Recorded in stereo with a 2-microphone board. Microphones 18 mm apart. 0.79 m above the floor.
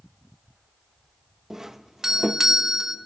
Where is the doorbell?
20° right (ahead or behind), 0.8 m.